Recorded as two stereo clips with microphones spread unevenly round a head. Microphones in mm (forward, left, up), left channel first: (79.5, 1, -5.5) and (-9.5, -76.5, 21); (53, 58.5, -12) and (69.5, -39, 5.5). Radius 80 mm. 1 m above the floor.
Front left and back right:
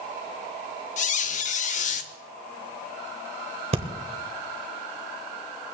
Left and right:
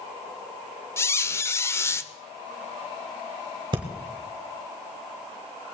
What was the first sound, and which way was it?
A squeak, 30° left.